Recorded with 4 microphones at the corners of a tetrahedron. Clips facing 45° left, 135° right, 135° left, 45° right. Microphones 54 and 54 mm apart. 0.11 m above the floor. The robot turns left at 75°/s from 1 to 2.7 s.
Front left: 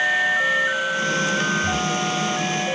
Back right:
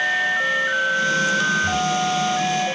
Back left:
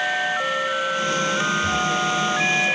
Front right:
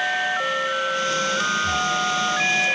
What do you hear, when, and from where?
1.6 s breathing: 140° left, 0.7 m; by 1.9 s 115° left, 0.7 m